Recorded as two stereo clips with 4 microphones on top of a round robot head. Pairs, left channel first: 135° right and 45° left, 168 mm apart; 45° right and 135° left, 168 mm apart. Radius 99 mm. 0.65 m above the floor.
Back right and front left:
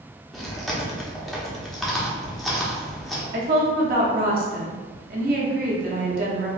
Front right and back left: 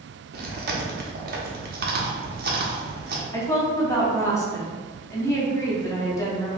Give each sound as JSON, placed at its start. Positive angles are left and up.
{"t": 0.3, "sound": "chewing", "azimuth_deg": 135, "distance_m": 0.9}
{"t": 3.3, "sound": "a woman speaking", "azimuth_deg": 25, "distance_m": 1.2}